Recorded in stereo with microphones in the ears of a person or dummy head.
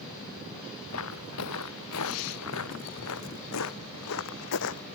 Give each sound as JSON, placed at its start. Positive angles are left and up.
{"t": 0.9, "sound": "footsteps", "side_deg": 80}